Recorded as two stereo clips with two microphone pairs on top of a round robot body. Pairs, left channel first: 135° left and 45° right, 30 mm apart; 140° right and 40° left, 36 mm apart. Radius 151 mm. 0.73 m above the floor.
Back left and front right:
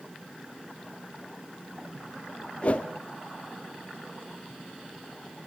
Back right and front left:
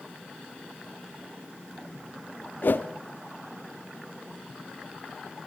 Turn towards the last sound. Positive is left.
turn(degrees=-175)